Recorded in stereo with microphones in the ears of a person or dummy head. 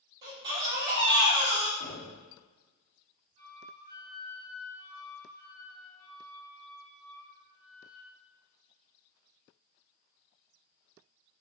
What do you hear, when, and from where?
0.2 s a baby crying: 20° right (ahead or behind), 1.3 m
1.8 s knocking: 35° left (ahead or behind), 0.7 m
3.4 s a flute: 25° right (ahead or behind), 1.1 m